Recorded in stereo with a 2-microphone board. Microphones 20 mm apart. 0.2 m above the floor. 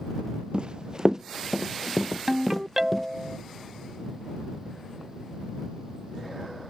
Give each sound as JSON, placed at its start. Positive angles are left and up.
{"t": 0.5, "sound": "running footsteps", "side_deg": -55}
{"t": 2.3, "sound": "a ringtone", "side_deg": -20}